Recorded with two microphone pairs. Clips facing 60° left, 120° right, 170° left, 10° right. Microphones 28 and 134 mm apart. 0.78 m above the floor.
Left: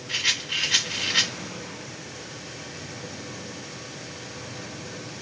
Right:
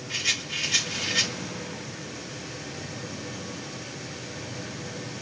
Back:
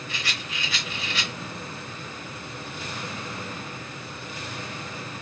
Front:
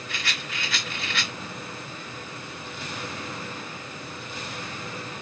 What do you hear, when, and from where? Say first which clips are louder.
0.1 s a rattle: left 3 dB, front 2 dB; 20° left, 1.5 m